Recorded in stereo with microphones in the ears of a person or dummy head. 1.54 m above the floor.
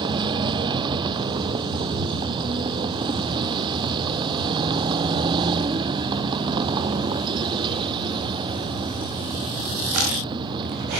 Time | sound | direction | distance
0.0 | a vehicle | 25° right (ahead or behind) | ?